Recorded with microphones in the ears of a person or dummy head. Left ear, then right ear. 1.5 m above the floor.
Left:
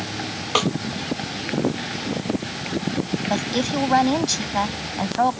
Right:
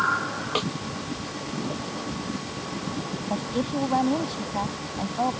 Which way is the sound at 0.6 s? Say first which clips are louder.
Left 8 dB; 30° left (ahead or behind).